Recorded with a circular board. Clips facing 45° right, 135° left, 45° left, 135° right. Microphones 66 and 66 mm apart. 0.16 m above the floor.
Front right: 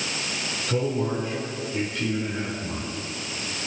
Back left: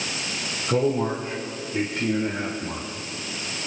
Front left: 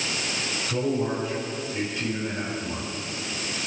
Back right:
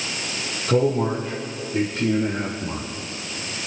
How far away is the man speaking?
About 4.5 m.